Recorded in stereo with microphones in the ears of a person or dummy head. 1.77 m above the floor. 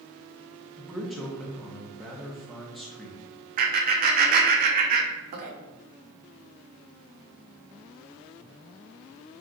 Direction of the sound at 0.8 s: Centre (ahead or behind).